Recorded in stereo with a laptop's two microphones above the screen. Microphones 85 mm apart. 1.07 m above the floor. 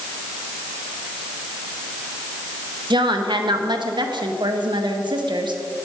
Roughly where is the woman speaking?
Right.